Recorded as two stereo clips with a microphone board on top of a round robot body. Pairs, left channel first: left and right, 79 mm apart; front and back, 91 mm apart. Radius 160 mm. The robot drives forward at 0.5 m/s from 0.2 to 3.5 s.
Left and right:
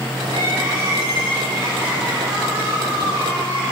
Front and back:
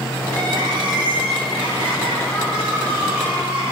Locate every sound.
0.3 s crying: 145° right, 2.5 m; by 3.7 s 160° right, 3.5 m